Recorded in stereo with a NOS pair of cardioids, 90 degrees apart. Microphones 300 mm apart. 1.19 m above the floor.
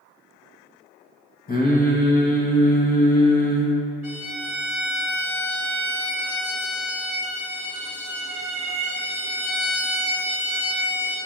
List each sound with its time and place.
1.5 s singing: 30° left, 1.2 m
4.0 s a violin: 10° right, 1.7 m